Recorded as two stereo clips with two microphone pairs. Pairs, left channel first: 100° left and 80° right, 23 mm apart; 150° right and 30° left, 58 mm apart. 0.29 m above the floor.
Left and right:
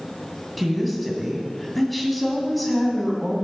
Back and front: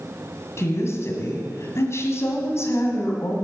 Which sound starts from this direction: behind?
A woman speaking, at 0.6 s.